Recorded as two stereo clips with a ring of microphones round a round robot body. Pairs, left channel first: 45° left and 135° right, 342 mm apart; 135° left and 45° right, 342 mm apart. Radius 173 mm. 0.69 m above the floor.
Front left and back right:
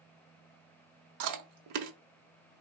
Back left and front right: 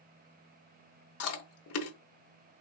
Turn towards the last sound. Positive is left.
turn(degrees=-175)